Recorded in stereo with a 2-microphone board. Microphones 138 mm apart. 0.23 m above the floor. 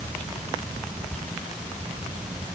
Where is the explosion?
I don't hear an explosion.